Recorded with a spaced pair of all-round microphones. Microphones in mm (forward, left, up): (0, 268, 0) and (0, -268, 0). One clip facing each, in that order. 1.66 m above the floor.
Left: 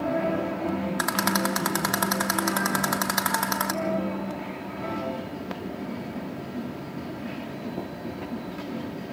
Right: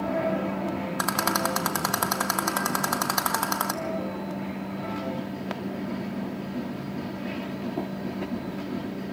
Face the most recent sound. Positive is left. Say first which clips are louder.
# left 2 dB
turn(degrees=40)  # may be behind; listen again after turning